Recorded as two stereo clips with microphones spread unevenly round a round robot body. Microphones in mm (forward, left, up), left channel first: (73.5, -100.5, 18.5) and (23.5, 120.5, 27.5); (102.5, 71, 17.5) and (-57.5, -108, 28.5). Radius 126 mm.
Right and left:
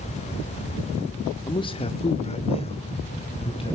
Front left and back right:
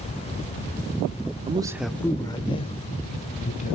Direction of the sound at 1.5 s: 115° right.